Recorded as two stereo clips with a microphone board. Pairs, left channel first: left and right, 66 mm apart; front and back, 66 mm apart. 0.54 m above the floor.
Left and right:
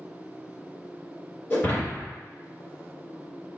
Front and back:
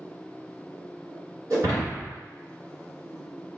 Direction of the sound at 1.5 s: 155° left.